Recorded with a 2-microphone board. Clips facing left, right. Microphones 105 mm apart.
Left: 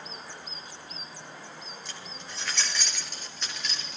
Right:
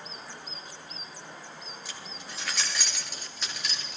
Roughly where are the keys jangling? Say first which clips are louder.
Even; centre.